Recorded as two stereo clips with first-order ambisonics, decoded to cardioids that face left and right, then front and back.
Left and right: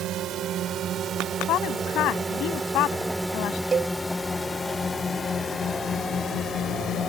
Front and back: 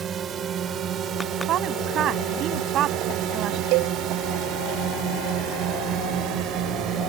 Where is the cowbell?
160° right.